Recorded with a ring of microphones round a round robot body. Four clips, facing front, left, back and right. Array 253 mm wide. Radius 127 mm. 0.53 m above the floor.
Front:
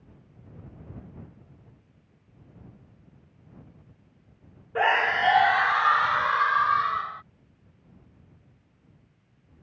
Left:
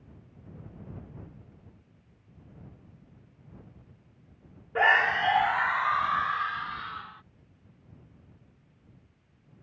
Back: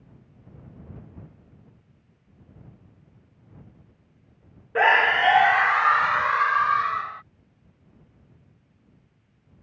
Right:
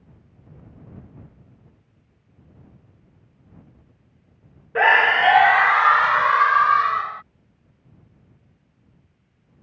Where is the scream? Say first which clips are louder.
Right 7 dB, back 4 dB; 125° right; by 7.2 s 95° right.